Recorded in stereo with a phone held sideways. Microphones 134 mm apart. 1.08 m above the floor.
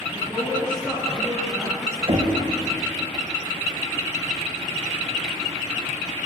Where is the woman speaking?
5° left (ahead or behind), 2.5 m; by 2.0 s 45° right (ahead or behind), 1.4 m.